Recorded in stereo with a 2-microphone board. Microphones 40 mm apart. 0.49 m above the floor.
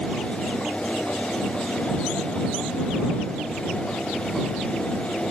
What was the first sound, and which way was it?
Only background noise.